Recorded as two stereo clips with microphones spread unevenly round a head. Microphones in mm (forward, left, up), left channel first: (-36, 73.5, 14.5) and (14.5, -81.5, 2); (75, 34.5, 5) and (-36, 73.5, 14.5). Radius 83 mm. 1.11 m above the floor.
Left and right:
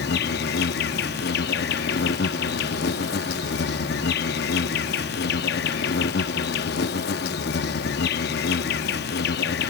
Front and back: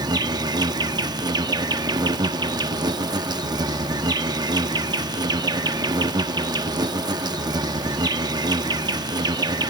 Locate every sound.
0.0 s an insect: 110° left